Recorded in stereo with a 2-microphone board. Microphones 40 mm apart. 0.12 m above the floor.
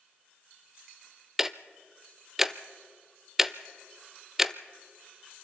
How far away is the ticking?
About 0.6 m.